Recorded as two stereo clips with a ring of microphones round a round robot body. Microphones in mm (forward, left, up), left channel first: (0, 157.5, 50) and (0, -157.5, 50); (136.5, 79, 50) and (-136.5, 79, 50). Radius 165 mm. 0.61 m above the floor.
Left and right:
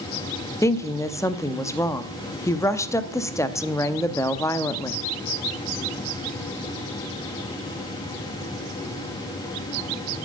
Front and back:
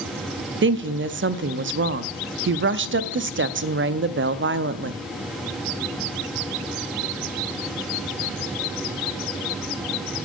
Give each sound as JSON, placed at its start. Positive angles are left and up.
{"t": 0.6, "sound": "a woman speaking", "azimuth_deg": 165, "distance_m": 0.6}